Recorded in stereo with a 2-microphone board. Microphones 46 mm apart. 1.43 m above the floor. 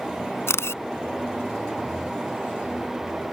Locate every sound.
0.5 s a camera shutter: 75° left (ahead or behind)